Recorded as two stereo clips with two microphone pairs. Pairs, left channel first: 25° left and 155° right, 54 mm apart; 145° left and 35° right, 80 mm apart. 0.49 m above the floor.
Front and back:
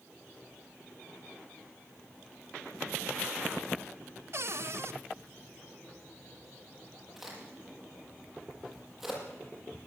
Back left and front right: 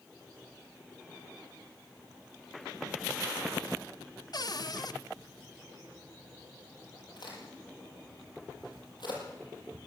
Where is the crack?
120° left, 9.5 m.